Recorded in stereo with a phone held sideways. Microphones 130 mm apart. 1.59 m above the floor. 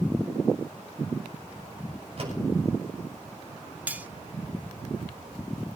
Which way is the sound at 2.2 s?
50° right (ahead or behind).